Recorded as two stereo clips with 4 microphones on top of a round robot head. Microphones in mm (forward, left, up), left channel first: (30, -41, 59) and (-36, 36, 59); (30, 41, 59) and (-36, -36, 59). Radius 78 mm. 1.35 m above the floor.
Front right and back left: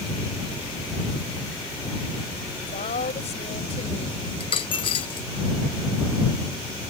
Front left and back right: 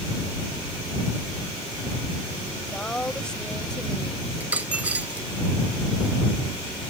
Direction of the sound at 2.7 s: 35° right.